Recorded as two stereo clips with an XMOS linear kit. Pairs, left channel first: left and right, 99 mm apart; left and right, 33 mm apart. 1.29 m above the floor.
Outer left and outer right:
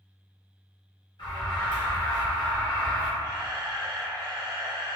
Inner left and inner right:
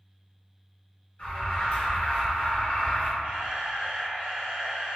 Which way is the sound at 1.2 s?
55° left (ahead or behind).